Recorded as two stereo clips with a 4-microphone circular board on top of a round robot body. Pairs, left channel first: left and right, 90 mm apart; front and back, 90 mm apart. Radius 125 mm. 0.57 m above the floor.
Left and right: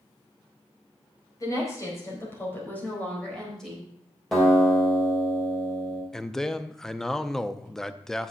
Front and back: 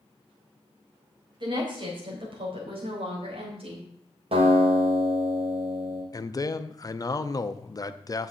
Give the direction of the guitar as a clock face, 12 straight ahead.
6 o'clock.